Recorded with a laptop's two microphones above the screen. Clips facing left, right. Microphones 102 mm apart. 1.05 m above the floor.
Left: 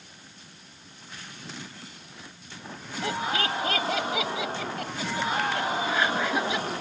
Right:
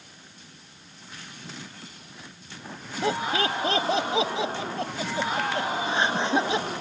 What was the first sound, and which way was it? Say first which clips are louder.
Laughter: right 3 dB; 25° right (ahead or behind).